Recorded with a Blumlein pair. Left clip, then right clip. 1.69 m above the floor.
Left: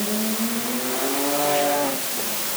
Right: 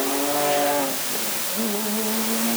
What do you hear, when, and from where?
Only background noise.